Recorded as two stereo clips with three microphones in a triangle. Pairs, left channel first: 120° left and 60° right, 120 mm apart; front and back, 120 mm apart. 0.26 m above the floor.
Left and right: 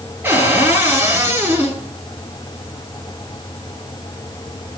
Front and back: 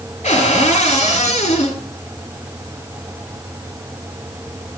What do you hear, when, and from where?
0.2 s a cupboard door: 10° left, 4 m